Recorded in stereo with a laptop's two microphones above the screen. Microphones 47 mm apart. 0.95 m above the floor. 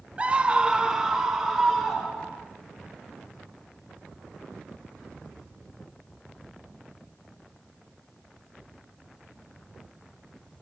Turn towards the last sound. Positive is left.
turn(degrees=-10)  # may be behind; listen again after turning